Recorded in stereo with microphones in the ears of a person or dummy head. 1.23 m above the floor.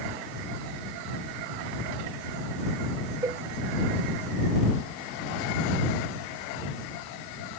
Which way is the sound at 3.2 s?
15° right (ahead or behind).